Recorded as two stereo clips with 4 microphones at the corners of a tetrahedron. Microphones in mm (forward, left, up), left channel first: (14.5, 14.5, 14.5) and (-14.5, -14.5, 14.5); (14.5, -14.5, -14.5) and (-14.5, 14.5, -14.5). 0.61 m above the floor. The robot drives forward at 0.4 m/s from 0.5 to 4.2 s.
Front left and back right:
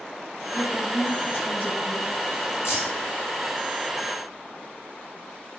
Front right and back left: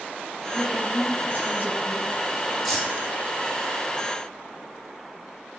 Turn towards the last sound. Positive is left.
turn(degrees=45)